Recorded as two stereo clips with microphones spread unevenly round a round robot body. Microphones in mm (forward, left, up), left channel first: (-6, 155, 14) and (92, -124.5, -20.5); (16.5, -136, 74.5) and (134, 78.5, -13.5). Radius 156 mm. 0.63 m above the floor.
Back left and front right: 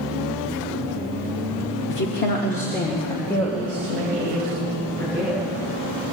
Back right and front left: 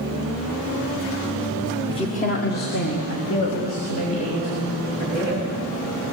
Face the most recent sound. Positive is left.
turn(degrees=-165)